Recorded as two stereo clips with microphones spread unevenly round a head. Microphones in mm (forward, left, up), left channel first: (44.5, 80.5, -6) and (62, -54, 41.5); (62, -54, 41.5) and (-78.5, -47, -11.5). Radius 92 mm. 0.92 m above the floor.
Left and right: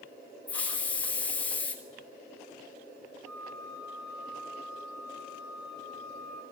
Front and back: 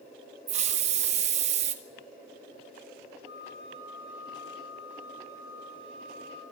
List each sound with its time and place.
0.5 s a hiss: 165° left, 1.5 m
3.2 s a flute: 5° left, 9.5 m